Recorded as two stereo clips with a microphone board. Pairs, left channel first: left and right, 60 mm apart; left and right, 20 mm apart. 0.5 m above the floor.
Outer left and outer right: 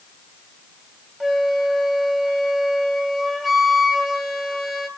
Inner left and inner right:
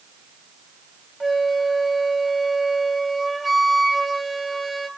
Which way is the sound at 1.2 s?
Centre (ahead or behind).